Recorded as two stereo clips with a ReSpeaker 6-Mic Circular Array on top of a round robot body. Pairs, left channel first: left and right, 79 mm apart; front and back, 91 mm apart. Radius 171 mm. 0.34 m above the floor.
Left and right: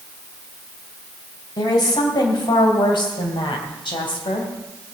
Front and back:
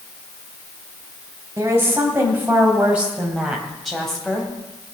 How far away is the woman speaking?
About 3 m.